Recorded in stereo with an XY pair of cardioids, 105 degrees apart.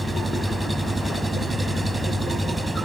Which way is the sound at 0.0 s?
20° right.